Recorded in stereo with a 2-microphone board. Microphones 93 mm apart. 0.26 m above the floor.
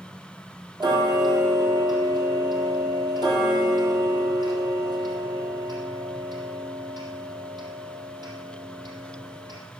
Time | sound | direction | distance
0.8 | ticking | 50° right (ahead or behind) | 3.5 m